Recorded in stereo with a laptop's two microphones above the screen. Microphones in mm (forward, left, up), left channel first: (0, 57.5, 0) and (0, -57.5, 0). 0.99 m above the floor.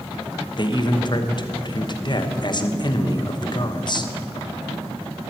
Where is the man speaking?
45° left (ahead or behind), 1.0 m.